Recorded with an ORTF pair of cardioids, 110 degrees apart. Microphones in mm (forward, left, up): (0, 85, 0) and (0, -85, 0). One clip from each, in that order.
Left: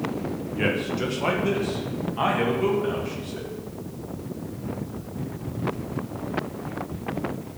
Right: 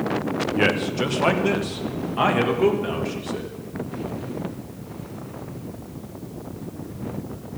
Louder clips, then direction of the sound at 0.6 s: Right 3 dB; 35° right.